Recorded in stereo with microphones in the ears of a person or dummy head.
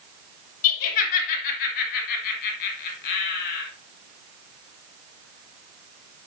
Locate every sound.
0.6 s laughter: 45° left (ahead or behind), 3 m; by 3.6 s 50° left (ahead or behind), 4.5 m